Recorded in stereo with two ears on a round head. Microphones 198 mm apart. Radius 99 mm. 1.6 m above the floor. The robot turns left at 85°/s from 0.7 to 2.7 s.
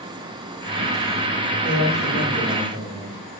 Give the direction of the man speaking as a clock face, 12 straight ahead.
10 o'clock.